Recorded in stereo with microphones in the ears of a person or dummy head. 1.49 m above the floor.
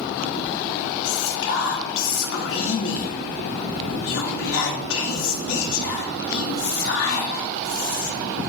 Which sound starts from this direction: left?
Whispering, at 1.1 s.